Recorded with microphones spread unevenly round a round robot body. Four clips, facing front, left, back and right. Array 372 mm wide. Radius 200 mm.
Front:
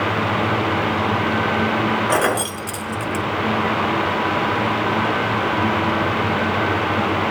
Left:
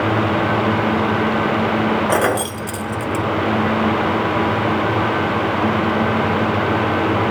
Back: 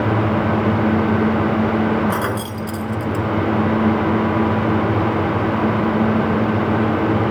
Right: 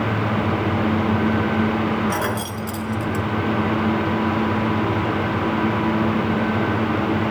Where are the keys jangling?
70° left, 0.7 m.